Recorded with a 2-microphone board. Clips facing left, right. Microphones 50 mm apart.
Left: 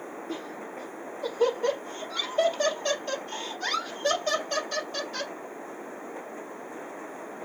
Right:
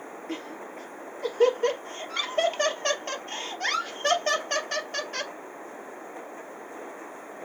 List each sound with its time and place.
0.3 s laughter: 60° right (ahead or behind), 2.5 m